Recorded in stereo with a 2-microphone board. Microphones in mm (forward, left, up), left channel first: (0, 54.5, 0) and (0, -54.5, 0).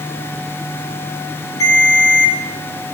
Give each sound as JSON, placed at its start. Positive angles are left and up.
{"t": 1.6, "sound": "a ringtone", "side_deg": 35, "distance_m": 3.5}